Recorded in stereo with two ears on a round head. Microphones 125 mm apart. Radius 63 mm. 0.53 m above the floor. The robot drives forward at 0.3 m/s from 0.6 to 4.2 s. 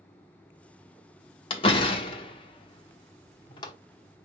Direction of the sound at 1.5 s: 40° left (ahead or behind).